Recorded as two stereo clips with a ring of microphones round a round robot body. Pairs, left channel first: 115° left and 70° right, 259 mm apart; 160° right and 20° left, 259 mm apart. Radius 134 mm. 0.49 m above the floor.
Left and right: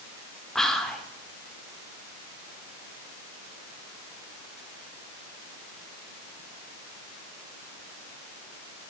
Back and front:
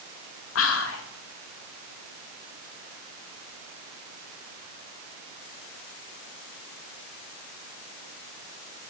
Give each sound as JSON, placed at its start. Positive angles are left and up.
{"t": 0.6, "sound": "whispering", "azimuth_deg": -160, "distance_m": 1.1}